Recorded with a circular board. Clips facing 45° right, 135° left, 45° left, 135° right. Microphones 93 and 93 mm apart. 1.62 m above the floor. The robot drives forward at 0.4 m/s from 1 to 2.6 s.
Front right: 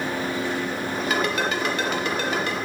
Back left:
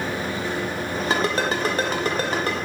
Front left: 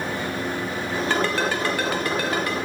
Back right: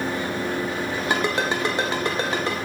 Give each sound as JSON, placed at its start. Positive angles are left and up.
{"t": 1.1, "sound": "a ringtone", "azimuth_deg": 165, "distance_m": 0.9}